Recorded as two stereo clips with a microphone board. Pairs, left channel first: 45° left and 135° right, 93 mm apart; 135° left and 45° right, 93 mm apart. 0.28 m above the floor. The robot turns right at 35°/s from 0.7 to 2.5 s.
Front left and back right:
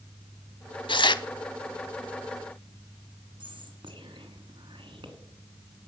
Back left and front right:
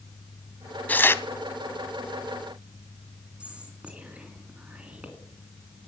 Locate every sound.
0.9 s tearing paper: 60° left, 0.6 m; by 1.2 s 75° left, 0.6 m
3.4 s whispering: 120° right, 2.5 m